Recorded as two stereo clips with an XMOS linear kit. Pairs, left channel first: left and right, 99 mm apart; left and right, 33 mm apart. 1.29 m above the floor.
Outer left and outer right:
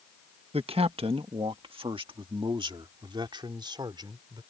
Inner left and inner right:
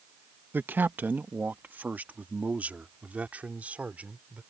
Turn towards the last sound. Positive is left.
turn(degrees=-50)  # may be behind; listen again after turning